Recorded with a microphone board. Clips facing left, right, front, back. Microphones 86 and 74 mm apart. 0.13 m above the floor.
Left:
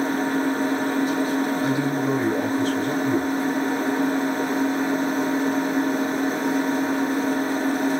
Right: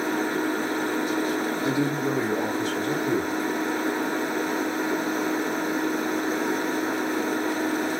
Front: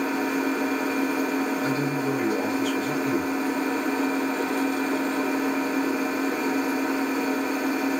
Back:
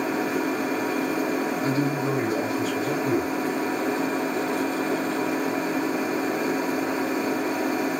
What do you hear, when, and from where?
0.0 s an engine running: 135° left, 2.5 m
1.6 s a man speaking: 135° left, 2 m